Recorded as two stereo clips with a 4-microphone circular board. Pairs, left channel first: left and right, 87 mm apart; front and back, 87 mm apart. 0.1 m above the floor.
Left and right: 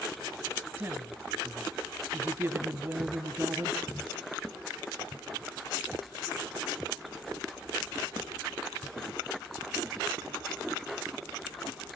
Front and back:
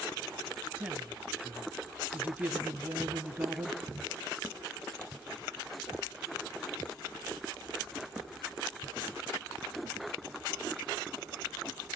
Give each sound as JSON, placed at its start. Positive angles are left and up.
{"t": 0.8, "sound": "a woman speaking", "azimuth_deg": -135, "distance_m": 1.8}